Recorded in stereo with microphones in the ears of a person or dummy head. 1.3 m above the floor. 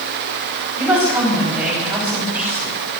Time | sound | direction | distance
0.8 | a woman speaking | 5° right (ahead or behind) | 10 m